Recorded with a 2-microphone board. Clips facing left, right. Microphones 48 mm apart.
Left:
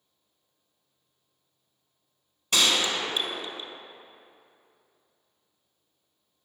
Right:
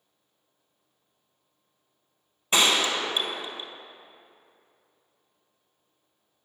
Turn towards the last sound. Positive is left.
turn(degrees=-25)  # may be behind; listen again after turning